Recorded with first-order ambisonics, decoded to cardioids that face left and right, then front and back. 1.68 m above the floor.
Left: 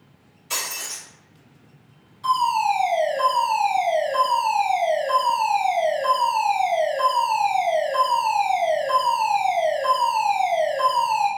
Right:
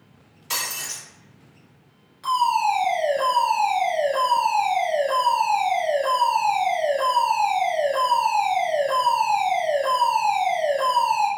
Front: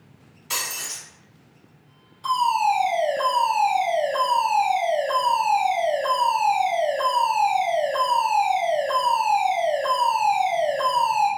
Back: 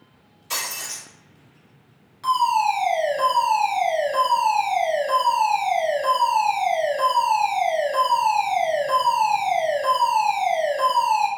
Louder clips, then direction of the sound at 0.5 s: Right 1 dB, even; 80° right.